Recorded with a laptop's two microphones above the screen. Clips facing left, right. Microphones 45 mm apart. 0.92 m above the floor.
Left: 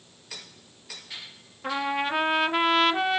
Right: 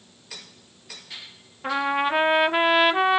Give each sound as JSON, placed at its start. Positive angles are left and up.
{"t": 1.6, "sound": "a trumpet", "side_deg": -15, "distance_m": 0.5}